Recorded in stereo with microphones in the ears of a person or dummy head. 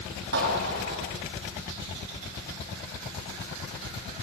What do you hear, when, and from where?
0.3 s a clap: 60° right (ahead or behind), 8.5 m